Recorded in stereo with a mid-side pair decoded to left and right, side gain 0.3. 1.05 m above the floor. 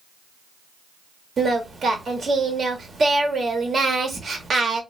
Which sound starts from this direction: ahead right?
Singing, at 1.4 s.